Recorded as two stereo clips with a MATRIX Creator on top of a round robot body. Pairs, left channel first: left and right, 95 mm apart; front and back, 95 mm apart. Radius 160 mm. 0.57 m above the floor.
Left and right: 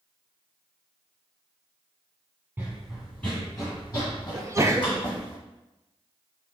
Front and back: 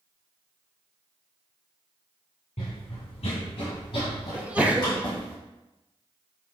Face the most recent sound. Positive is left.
turn(degrees=-115)